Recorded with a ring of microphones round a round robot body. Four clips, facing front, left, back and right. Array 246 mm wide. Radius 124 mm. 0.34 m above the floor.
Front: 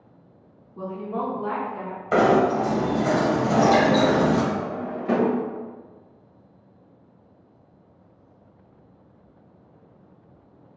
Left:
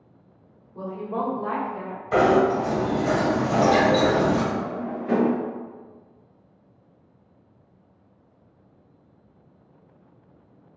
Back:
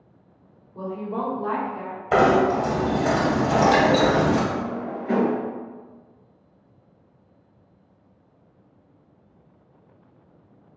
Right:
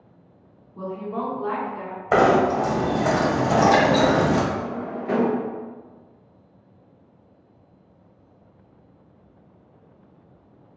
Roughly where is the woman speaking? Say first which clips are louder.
Even, even; behind left.